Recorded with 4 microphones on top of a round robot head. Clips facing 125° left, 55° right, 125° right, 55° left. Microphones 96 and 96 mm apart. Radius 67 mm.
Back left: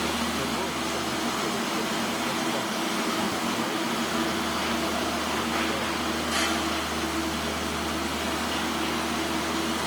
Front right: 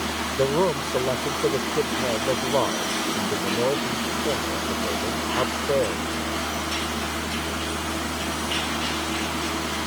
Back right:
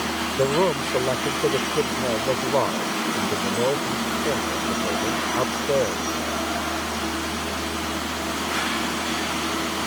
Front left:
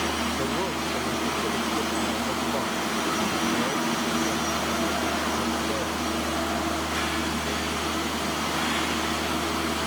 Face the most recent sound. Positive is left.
turn(degrees=-85)